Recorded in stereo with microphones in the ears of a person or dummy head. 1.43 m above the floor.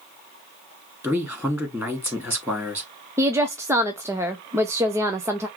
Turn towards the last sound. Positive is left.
turn(degrees=-15)  # may be behind; listen again after turning